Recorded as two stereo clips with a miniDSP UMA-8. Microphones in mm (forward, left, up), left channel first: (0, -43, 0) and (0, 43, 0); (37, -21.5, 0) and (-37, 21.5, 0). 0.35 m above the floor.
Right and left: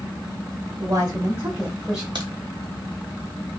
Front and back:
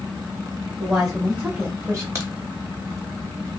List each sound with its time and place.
0.8 s a woman speaking: 65° left, 1.0 m; by 2.0 s 170° left, 1.0 m
2.1 s a crack: 95° left, 0.9 m